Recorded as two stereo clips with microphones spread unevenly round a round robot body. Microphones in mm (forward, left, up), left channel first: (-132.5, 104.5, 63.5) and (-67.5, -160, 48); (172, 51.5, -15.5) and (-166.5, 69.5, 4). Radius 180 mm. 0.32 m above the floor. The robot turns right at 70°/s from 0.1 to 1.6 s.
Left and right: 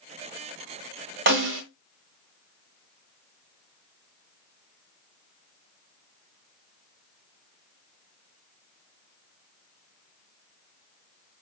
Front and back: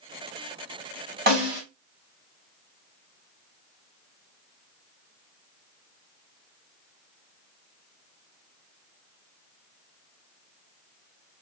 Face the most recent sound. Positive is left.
turn(degrees=-95)